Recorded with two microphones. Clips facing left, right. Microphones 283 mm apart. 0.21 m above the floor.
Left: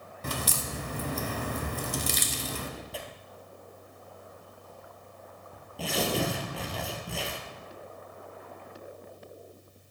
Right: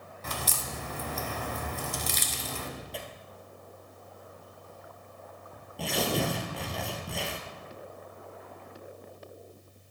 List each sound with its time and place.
0.2 s a crack: 40° left (ahead or behind), 0.8 m
2.9 s tearing paper: centre (ahead or behind), 1.0 m